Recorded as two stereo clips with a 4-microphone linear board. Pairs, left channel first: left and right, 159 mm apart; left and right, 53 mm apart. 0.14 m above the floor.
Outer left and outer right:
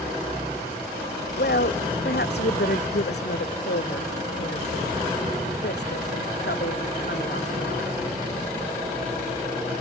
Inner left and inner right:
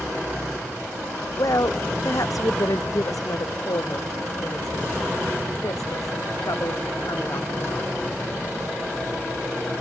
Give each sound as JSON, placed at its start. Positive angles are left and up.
{"t": 1.4, "sound": "a woman speaking", "side_deg": 70}